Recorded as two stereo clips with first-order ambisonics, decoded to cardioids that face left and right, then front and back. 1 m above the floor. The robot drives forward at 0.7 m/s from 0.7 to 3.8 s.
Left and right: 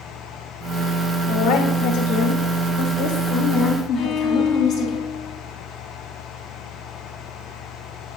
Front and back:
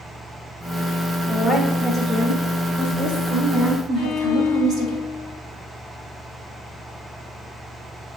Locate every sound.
1.3 s a woman speaking: 75° left, 1.7 m; by 5.0 s 130° left, 2 m
4.0 s a violin: 45° left, 0.6 m